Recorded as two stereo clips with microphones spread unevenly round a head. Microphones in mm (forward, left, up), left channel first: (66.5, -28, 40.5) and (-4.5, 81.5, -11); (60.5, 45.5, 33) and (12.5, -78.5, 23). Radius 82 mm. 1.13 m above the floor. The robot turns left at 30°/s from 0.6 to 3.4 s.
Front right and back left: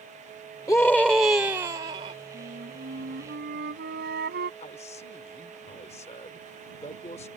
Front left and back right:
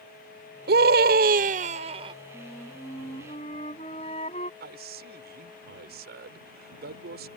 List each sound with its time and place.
0.7 s a scream: 130° right; by 2.1 s 175° right
2.3 s a flute: 160° left; by 4.5 s 130° left
4.6 s a man speaking: 115° right